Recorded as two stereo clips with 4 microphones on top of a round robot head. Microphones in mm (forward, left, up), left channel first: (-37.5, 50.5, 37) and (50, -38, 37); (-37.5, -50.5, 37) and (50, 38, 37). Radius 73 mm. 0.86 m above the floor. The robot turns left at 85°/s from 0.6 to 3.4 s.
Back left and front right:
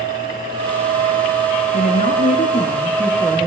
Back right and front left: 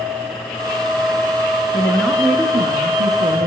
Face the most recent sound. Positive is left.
turn(degrees=25)